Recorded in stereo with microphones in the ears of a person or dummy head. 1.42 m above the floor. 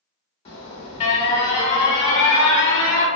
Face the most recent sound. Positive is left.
turn(degrees=30)  # may be behind; listen again after turning